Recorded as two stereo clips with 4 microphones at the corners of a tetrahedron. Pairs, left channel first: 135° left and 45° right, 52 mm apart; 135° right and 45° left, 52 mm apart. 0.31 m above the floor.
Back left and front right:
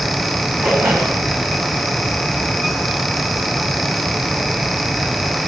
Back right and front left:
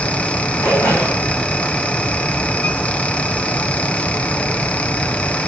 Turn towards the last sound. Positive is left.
turn(degrees=-105)